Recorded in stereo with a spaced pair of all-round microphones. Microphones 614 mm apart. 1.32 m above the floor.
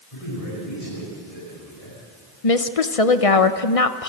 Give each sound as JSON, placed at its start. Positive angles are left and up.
{"t": 0.1, "sound": "a man speaking", "side_deg": 60, "distance_m": 9.5}
{"t": 2.4, "sound": "a woman speaking", "side_deg": 65, "distance_m": 1.1}